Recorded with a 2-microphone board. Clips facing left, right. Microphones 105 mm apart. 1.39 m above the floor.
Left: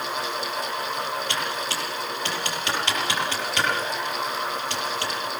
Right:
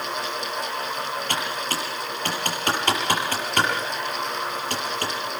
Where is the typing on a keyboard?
45° right (ahead or behind), 7.5 m.